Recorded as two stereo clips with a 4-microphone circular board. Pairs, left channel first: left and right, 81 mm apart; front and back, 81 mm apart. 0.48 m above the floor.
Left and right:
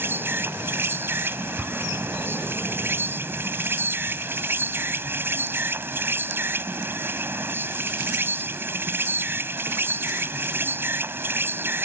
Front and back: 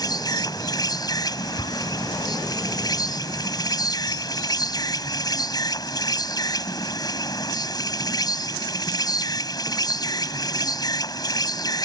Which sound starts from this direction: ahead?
An explosion, at 1.6 s.